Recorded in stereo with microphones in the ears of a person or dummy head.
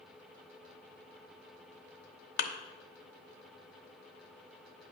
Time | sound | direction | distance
2.4 | a thud | 55° left (ahead or behind) | 0.8 m